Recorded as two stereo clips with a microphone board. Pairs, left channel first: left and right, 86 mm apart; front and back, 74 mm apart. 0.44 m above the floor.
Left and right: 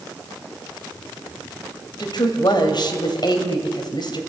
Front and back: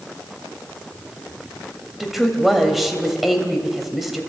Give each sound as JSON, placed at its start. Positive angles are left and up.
{"t": 2.0, "sound": "a woman speaking", "azimuth_deg": 95, "distance_m": 2.5}